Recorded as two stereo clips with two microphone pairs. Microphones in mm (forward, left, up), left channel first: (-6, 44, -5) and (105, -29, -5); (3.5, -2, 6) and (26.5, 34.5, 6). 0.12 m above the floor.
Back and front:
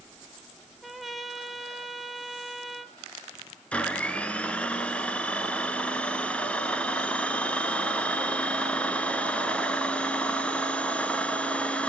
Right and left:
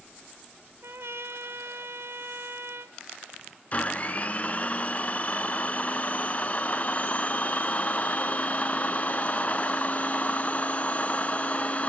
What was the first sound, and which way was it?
A trumpet, 50° left.